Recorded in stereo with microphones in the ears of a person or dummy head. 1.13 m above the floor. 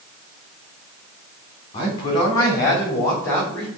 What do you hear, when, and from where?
1.7 s a man speaking: 25° left (ahead or behind), 3.5 m; by 3.7 s 5° left (ahead or behind), 3 m